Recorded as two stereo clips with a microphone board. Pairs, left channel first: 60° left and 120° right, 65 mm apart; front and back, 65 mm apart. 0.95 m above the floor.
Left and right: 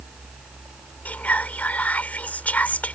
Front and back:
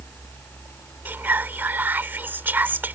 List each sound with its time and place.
1.1 s whispering: 125° left